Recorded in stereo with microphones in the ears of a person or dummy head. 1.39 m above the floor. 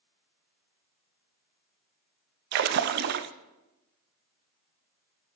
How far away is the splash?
About 0.6 m.